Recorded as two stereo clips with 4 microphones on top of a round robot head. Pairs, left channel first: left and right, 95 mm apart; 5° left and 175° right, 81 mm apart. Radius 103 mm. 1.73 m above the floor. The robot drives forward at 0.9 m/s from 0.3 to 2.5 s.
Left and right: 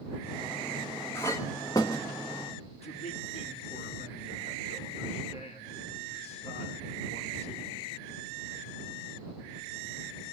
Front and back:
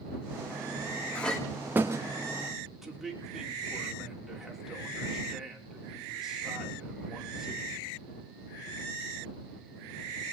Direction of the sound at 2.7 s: 95° left.